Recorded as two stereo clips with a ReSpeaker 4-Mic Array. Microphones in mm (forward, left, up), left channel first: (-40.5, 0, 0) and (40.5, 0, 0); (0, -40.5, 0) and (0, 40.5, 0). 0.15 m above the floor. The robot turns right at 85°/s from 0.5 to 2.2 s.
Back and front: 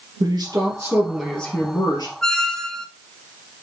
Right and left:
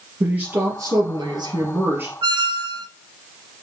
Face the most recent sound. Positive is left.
turn(degrees=100)